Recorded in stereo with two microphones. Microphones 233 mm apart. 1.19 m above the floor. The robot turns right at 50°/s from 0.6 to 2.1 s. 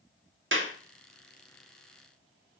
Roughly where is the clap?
Right.